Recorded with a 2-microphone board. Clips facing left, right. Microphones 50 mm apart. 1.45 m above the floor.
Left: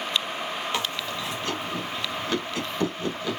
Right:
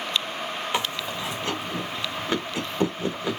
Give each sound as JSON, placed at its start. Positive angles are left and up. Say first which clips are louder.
{"t": 0.7, "sound": "chewing", "louder": "right 1 dB", "side_deg": -20, "distance_m": 1.3}